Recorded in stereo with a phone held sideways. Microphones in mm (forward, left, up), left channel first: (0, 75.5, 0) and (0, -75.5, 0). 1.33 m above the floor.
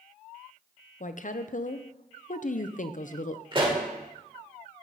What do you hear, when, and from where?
1.0 s a woman speaking: 60° left (ahead or behind), 0.5 m
3.5 s a pop: 35° right (ahead or behind), 1.7 m